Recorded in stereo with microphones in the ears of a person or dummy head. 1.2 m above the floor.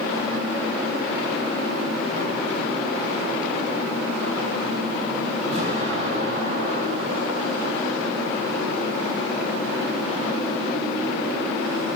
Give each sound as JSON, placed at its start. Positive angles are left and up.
{"t": 5.5, "sound": "an explosion", "side_deg": -45, "distance_m": 4.5}